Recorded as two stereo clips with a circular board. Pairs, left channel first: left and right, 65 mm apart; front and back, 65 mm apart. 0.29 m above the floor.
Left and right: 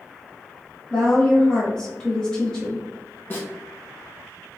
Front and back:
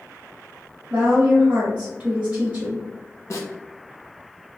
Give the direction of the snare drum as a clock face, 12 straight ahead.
11 o'clock.